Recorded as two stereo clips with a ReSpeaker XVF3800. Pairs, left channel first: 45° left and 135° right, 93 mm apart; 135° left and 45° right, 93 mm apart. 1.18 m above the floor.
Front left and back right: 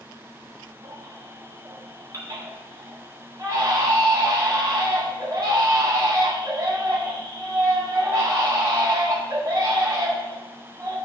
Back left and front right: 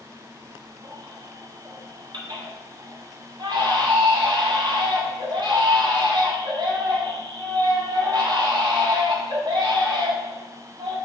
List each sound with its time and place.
0.8 s a baby crying: 80° right, 1.7 m